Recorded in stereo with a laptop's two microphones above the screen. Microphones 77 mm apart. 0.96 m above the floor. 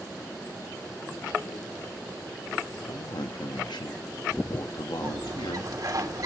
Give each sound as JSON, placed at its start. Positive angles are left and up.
{"t": 2.9, "sound": "a man speaking", "side_deg": 70, "distance_m": 1.1}
{"t": 5.0, "sound": "a bird", "side_deg": -50, "distance_m": 2.5}